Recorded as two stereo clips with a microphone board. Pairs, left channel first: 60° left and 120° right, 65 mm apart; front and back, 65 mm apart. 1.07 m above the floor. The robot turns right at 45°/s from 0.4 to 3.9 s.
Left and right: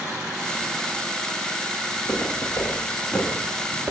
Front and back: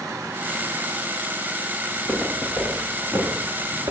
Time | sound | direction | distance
1.9 | footsteps | 70° left | 5.5 m